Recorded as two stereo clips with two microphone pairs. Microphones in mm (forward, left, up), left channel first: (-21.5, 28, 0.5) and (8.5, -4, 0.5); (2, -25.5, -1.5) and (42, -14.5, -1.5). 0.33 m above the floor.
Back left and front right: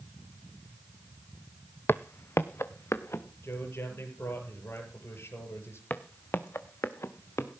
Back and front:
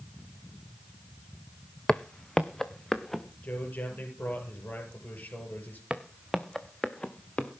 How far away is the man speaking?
About 7 m.